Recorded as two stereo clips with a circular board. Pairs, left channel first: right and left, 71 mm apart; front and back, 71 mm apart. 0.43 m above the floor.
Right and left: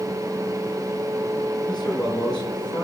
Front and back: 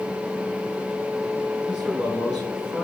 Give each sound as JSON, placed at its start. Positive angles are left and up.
{"t": 1.7, "sound": "a man speaking", "azimuth_deg": -105, "distance_m": 6.5}